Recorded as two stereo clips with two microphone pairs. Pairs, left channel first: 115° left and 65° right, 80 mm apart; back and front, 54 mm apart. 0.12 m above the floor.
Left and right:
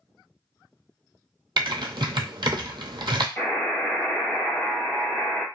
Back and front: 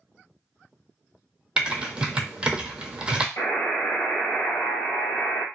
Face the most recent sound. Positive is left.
turn(degrees=-170)